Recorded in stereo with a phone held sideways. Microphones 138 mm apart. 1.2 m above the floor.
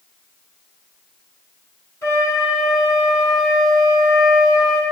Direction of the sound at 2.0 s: 25° left (ahead or behind).